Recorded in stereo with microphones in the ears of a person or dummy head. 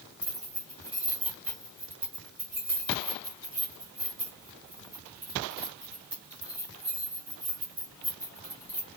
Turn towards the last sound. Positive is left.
turn(degrees=-10)  # may be behind; listen again after turning